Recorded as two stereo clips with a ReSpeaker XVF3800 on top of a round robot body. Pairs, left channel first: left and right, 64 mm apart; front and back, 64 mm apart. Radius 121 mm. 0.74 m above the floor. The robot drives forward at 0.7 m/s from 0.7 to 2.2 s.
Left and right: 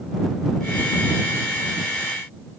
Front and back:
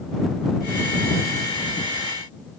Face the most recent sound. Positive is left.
No sound to turn to.